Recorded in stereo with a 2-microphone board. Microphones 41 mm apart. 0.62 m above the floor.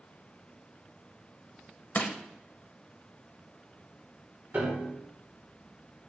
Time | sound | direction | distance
1.9 | crushing | 40° left (ahead or behind) | 0.5 m
4.5 | a piano | 40° right (ahead or behind) | 1.2 m